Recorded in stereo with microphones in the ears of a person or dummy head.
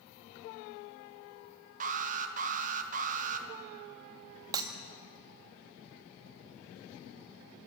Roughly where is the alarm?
Right.